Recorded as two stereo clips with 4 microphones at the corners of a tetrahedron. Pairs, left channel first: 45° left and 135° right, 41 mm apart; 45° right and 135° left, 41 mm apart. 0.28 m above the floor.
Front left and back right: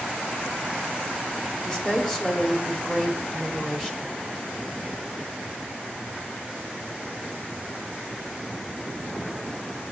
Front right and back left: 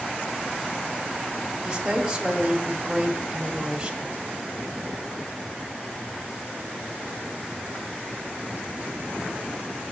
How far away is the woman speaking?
About 1.4 m.